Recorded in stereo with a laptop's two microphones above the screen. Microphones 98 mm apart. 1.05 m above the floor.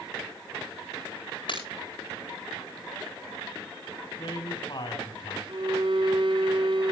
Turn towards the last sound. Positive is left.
turn(degrees=-60)  # may be behind; listen again after turning